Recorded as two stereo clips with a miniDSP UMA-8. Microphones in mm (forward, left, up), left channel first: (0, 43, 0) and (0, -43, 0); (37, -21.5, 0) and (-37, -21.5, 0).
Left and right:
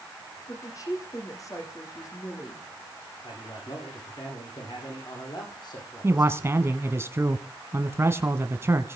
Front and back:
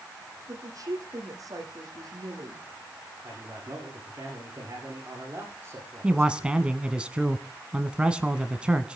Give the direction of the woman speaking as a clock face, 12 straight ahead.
7 o'clock.